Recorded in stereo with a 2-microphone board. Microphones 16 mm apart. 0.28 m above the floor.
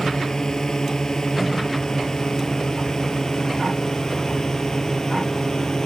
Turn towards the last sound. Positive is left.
turn(degrees=45)  # may be behind; listen again after turning